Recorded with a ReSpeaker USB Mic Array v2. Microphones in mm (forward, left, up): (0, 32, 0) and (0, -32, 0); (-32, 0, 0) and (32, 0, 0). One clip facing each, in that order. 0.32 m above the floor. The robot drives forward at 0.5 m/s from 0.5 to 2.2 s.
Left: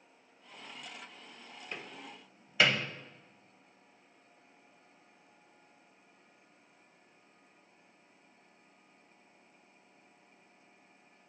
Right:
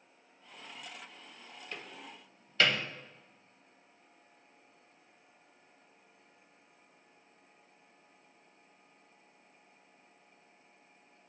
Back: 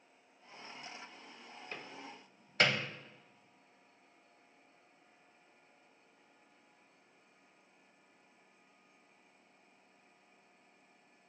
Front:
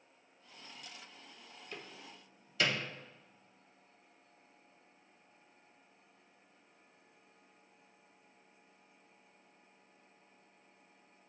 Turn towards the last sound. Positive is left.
turn(degrees=165)